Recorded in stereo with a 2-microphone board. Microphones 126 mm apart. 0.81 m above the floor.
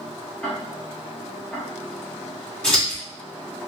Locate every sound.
0.4 s ticking: 5° left (ahead or behind), 1.4 m
2.6 s scissors: 10° left (ahead or behind), 1.7 m